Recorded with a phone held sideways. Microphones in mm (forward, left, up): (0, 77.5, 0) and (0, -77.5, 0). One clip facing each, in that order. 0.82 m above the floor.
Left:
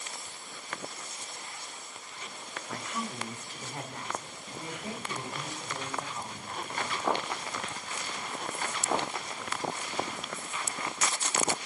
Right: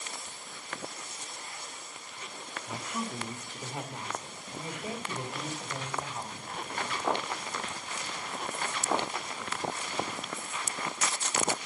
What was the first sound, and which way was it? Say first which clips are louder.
A woman speaking: right 1 dB; 10° right (ahead or behind).